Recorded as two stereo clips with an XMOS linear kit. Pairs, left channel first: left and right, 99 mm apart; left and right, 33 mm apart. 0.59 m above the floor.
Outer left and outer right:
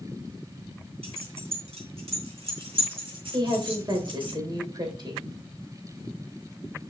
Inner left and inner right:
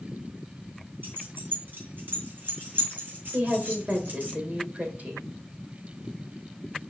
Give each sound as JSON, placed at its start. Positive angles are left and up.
{"t": 1.0, "sound": "keys jangling", "side_deg": -85, "distance_m": 3.0}
{"t": 3.3, "sound": "a woman speaking", "side_deg": -45, "distance_m": 2.5}